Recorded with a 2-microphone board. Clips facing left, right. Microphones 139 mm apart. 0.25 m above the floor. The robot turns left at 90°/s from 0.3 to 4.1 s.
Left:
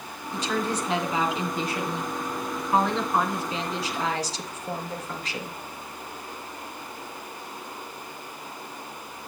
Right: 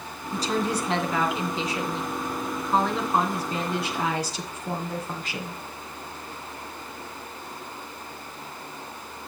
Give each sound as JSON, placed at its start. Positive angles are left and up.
{"t": 0.3, "sound": "a woman speaking", "azimuth_deg": -130, "distance_m": 2.5}